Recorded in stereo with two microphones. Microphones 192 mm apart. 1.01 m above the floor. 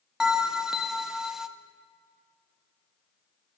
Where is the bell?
Centre (ahead or behind), 0.6 m.